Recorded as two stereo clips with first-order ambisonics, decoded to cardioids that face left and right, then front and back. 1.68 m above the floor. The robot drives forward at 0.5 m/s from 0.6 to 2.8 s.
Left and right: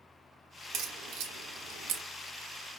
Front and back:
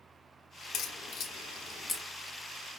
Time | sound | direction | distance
0.7 | a crack | 45° right | 1.0 m